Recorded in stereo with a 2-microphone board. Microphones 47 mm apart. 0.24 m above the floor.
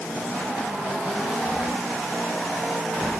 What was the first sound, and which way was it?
Only background noise.